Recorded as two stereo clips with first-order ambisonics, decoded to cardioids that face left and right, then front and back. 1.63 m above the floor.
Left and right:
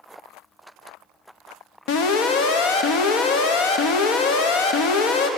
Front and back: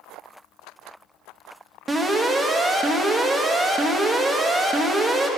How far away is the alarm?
About 1.1 m.